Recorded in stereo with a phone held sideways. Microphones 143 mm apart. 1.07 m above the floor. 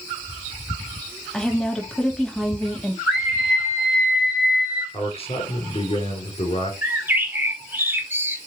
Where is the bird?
15° right (ahead or behind), 1.2 m.